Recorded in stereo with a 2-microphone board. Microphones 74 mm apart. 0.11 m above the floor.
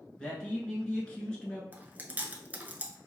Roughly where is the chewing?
Right.